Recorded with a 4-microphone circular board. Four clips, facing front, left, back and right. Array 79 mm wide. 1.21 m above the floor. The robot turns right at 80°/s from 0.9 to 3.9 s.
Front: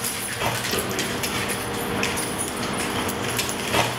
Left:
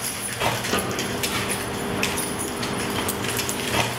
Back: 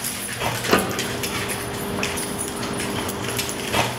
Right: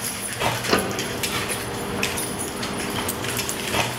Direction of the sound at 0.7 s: 150° right.